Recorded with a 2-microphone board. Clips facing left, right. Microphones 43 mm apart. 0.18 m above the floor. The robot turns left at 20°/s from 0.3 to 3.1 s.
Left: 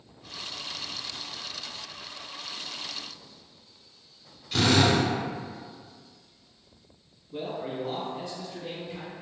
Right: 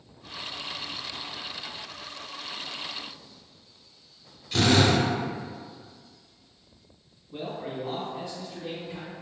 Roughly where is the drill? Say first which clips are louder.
Right 1 dB; centre.